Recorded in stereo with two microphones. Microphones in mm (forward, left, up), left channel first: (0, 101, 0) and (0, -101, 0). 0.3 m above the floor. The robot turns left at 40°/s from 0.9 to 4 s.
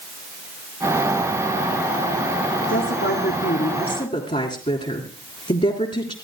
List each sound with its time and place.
2.7 s a woman speaking: 90° left, 3 m; by 6.1 s 35° left, 3 m